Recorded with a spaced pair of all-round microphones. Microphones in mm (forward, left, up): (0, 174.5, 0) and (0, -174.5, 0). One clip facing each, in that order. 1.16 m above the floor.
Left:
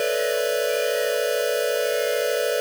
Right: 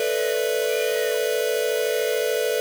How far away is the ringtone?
No ringtone in this recording.